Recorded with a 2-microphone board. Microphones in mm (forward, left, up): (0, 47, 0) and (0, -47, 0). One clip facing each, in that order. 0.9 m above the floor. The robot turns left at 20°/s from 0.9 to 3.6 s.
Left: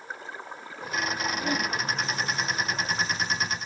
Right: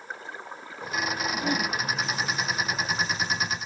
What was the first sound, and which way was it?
A whoosh, 20° right (ahead or behind).